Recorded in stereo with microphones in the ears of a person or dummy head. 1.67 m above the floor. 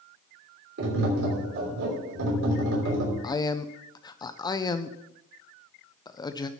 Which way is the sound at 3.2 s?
15° left (ahead or behind).